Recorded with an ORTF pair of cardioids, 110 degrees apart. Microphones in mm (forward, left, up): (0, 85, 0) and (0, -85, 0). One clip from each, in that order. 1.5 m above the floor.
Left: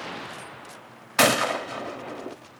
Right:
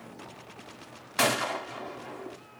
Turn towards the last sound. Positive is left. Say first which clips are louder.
# left 6 dB
turn(degrees=30)